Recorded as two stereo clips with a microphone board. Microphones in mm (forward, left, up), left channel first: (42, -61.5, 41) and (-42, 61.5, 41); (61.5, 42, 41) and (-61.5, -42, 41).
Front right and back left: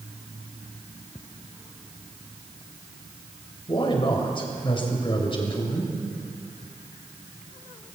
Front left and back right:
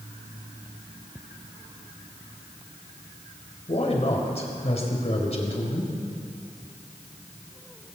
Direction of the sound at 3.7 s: 5° right.